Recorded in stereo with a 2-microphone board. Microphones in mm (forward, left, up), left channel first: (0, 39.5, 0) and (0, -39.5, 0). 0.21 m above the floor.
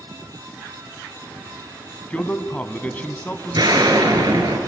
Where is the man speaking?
20° left (ahead or behind), 1.3 m.